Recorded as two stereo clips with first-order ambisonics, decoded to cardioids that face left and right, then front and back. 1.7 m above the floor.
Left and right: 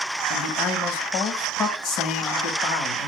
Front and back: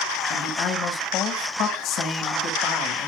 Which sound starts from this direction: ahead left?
A man speaking, at 0.3 s.